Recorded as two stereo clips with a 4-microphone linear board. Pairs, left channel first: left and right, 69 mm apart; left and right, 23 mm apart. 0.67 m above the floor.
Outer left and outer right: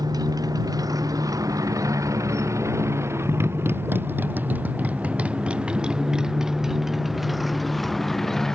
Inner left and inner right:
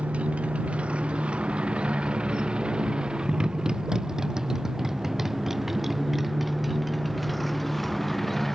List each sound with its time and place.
0.0 s a motorcycle: 70° right (ahead or behind); by 8.6 s 5° left (ahead or behind)